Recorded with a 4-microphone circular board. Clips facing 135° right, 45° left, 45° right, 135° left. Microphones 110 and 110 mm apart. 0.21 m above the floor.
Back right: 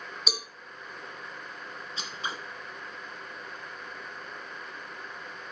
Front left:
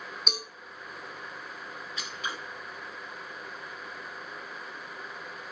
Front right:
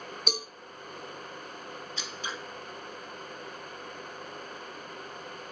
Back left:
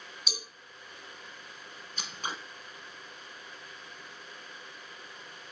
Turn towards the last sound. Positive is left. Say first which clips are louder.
# back right 1 dB, back left 3 dB
turn(degrees=170)